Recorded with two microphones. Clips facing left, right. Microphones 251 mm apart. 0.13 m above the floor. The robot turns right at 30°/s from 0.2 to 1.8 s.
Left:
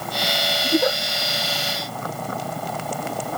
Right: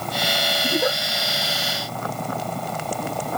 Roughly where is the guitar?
No guitar in this recording.